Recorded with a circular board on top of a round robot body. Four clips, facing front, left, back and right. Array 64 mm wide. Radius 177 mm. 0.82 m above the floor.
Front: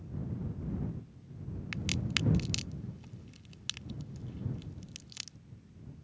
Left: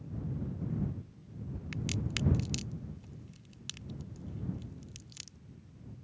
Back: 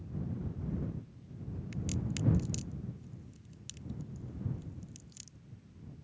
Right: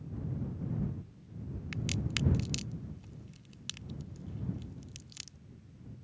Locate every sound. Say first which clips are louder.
1.7 s a crack: right 1 dB, front 2 dB; 5° right